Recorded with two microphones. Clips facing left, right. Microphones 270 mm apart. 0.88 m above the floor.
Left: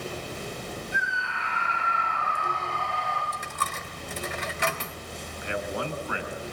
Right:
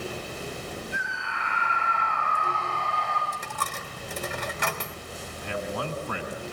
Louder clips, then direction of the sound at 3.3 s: Even; 60° right (ahead or behind).